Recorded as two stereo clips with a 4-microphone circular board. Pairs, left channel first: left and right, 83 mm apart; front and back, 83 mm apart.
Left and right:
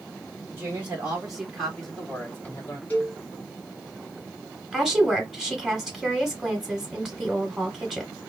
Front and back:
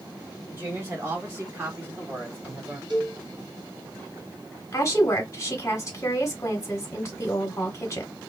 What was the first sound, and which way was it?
A woman speaking, 135° right.